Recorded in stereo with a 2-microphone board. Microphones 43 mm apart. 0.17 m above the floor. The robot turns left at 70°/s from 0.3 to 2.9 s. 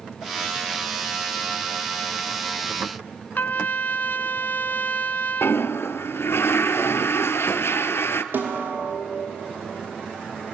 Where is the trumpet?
50° left (ahead or behind), 0.6 m.